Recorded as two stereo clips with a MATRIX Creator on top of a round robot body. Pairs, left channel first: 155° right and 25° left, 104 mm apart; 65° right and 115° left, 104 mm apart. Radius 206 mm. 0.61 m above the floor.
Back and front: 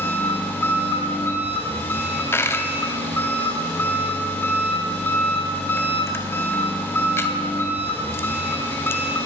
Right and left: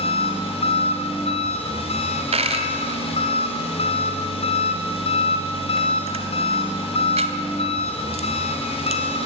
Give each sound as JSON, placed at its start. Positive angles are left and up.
{"t": 0.0, "sound": "an engine running", "azimuth_deg": -90, "distance_m": 3.0}
{"t": 2.3, "sound": "a dropped coin", "azimuth_deg": 135, "distance_m": 0.9}